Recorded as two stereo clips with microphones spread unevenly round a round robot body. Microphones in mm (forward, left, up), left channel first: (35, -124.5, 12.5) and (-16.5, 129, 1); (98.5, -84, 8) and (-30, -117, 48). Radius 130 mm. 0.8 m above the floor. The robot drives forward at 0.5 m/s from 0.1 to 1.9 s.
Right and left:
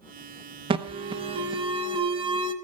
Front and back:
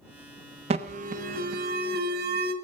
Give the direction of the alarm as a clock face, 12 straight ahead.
7 o'clock.